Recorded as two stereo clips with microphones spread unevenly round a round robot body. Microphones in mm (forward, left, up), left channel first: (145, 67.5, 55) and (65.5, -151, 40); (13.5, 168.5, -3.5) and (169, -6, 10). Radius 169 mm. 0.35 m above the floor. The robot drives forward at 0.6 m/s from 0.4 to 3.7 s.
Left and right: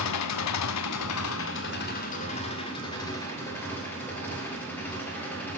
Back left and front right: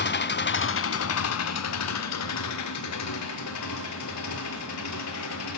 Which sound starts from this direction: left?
An engine running, at 0.0 s.